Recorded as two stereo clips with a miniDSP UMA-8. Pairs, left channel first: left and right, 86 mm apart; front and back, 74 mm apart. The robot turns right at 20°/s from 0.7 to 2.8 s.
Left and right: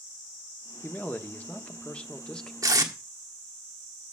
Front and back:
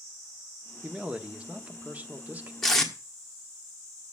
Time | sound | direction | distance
0.8 | a man speaking | 120° left | 0.8 m
2.6 | tape being pulled | 80° right | 1.4 m